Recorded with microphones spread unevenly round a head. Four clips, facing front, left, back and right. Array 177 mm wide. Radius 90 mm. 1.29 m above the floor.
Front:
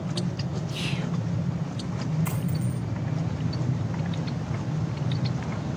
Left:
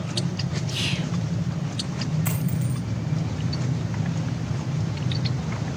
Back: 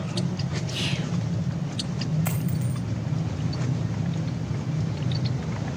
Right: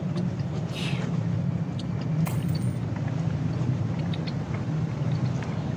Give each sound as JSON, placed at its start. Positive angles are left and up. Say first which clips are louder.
{"t": 0.7, "sound": "whispering", "louder": "left 1 dB, back 1 dB", "azimuth_deg": 140, "distance_m": 3.5}
{"t": 2.2, "sound": "a dropped coin", "louder": "left 2 dB, back 1 dB", "azimuth_deg": 175, "distance_m": 2.5}